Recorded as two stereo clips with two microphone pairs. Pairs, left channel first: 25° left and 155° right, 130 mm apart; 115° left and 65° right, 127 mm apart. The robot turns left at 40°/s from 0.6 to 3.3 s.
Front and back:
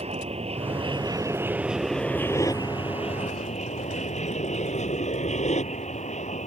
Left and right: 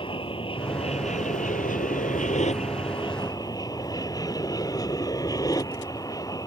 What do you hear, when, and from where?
0.0 s an aircraft: 165° left; by 6.5 s 55° left